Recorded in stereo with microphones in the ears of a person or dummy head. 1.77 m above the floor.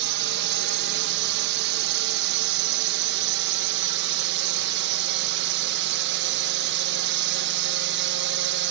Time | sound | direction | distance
0.0 | a drone | 65° right (ahead or behind) | ?